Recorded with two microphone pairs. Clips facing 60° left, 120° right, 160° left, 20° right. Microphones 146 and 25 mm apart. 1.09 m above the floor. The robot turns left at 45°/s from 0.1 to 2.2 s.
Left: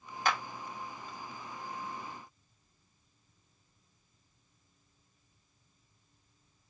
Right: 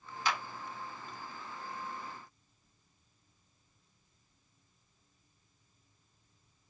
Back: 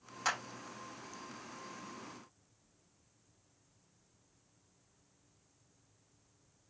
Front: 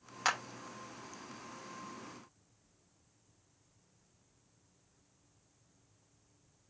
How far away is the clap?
About 1.2 m.